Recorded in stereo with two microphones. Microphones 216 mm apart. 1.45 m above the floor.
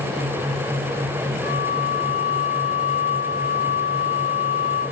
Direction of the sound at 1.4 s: 75° left (ahead or behind).